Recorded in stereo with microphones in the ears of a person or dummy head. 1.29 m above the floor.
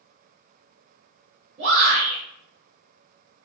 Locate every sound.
1.6 s a shout: 40° right (ahead or behind), 1.5 m